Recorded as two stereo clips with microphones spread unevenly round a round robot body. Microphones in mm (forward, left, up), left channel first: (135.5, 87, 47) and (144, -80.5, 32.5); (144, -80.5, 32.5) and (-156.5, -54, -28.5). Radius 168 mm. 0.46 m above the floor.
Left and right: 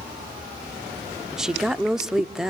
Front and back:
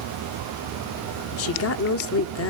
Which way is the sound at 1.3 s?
10° right.